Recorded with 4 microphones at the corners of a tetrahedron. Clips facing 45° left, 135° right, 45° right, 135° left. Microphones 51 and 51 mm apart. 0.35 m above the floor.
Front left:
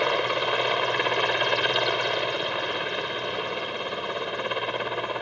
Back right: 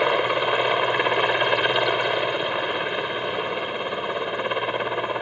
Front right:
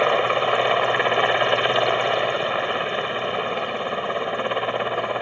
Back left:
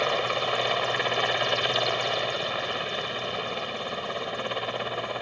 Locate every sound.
0.0 s a helicopter: 70° right